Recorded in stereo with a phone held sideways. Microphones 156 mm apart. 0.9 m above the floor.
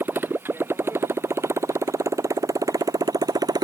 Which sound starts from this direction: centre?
A motorcycle, at 0.0 s.